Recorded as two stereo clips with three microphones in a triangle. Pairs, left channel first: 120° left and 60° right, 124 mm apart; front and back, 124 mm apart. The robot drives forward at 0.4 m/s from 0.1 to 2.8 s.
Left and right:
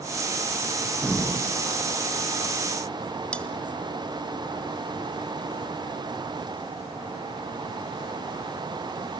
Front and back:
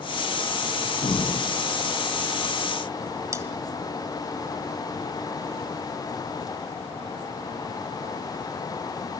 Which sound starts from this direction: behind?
Cutlery clinking, at 3.3 s.